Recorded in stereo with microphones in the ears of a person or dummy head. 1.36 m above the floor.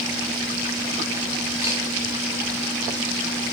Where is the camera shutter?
15° right (ahead or behind), 2.5 m.